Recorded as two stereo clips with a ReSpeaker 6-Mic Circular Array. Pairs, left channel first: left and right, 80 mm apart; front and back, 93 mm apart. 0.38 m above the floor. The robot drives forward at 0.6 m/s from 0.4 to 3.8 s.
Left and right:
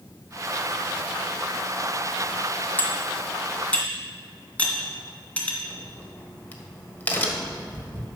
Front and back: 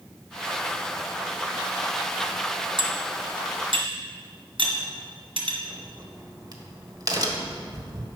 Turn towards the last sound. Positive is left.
turn(degrees=150)